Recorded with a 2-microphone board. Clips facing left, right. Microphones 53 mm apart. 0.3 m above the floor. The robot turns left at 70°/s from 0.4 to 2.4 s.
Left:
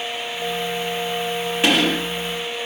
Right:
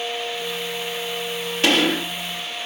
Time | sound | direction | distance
1.6 | a gunshot | 15° left | 5 m